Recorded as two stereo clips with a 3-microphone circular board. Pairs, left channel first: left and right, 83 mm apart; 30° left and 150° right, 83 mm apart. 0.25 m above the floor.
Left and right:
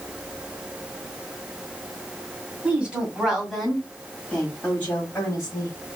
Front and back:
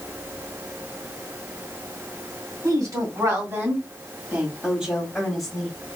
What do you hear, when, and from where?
2.6 s a woman speaking: 160° right, 2 m; by 5.8 s 110° left, 1.9 m